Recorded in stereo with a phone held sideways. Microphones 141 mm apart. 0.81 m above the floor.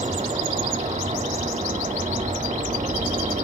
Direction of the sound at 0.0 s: 60° right (ahead or behind).